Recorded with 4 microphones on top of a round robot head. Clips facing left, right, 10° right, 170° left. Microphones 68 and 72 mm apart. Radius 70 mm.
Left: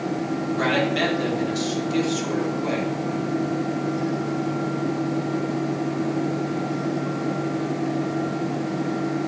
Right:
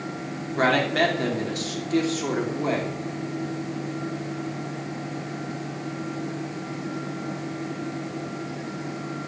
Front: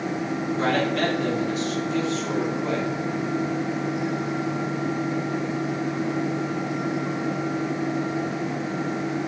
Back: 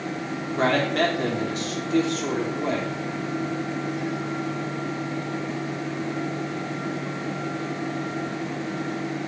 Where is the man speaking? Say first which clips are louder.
Right 2 dB, back 2 dB; 140° right, 3.5 m.